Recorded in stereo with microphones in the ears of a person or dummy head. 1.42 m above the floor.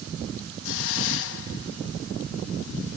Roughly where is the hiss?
Left.